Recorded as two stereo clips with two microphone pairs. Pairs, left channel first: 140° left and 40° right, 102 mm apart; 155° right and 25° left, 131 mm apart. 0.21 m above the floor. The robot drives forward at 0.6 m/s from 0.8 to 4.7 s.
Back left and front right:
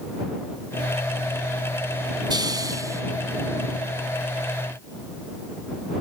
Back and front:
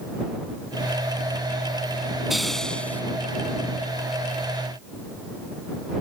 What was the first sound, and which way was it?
A hiss, 65° right.